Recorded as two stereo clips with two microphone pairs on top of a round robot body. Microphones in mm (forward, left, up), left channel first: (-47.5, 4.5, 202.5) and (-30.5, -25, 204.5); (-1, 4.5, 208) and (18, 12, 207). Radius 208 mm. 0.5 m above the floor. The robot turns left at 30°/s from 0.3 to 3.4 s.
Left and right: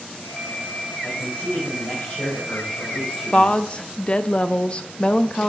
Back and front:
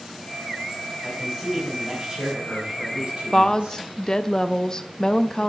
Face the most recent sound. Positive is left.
turn(degrees=155)